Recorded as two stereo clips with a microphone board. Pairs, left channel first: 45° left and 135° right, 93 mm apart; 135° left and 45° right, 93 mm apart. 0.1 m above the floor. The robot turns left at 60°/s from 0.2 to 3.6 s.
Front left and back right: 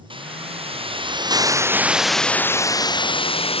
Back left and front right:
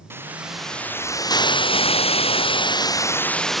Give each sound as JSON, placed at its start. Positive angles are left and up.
{"t": 0.1, "sound": "a hiss", "azimuth_deg": -110}